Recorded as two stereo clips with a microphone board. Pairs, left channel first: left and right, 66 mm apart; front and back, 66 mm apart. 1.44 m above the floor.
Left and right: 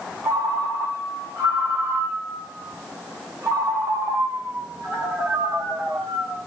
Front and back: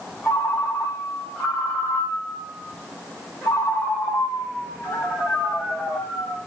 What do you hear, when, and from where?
0.2 s a ringtone: 50° right, 2.5 m